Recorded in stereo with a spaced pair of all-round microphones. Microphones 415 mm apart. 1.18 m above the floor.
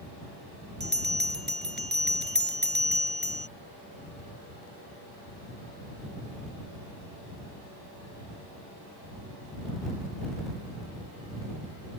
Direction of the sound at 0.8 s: 25° right (ahead or behind).